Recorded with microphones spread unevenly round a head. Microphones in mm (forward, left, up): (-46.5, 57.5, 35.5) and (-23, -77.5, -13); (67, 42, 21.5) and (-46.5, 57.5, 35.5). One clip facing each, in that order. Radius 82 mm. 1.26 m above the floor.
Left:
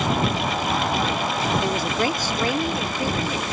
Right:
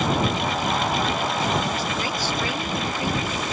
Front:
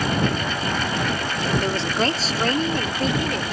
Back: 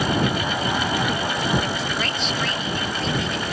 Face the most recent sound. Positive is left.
turn(degrees=30)